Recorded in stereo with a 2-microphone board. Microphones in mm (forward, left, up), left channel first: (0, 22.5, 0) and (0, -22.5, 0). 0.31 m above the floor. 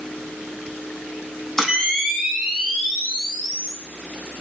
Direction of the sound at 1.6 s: 10° left (ahead or behind).